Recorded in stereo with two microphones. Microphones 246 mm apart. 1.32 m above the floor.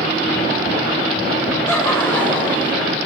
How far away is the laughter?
About 6 m.